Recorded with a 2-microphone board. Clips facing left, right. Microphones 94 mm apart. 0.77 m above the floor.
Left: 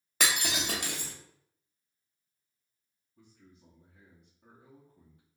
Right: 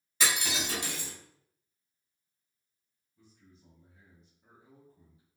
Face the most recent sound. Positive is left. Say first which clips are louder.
# left 2 dB
turn(degrees=55)  # may be behind; listen again after turning